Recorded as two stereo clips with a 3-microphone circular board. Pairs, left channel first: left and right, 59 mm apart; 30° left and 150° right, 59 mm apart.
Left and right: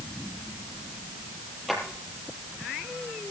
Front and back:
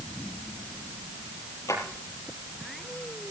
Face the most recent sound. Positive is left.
turn(degrees=0)